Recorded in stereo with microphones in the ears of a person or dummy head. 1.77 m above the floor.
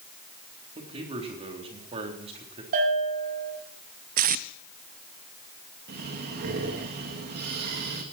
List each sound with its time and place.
0.8 s a man speaking: 30° right (ahead or behind), 3.5 m
2.7 s a bell: 45° right (ahead or behind), 6.5 m
4.2 s tape being pulled: 40° right (ahead or behind), 0.5 m
5.9 s breathing: 50° right (ahead or behind), 2 m